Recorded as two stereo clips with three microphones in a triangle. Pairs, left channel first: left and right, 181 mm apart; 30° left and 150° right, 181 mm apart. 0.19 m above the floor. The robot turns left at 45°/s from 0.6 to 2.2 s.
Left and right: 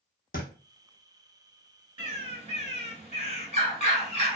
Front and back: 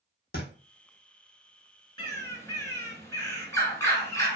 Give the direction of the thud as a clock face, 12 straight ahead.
10 o'clock.